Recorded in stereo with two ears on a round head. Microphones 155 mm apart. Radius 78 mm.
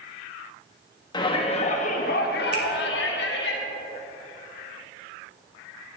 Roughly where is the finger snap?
Right.